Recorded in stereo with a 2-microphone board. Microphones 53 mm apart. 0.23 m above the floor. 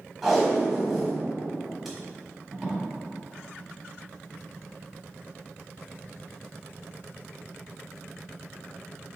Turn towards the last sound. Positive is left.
turn(degrees=0)  # may be behind; listen again after turning